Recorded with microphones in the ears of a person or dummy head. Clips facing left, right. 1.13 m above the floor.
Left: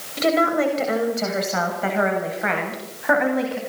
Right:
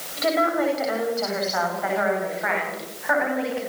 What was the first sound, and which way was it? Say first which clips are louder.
A woman speaking: left 3 dB; 30° left (ahead or behind).